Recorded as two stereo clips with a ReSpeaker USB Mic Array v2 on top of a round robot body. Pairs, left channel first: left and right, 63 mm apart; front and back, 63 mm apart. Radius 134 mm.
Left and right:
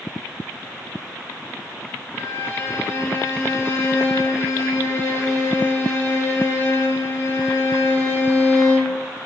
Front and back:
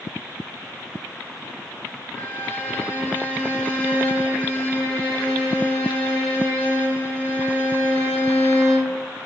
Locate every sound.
2.1 s a violin: 60° left, 1.1 m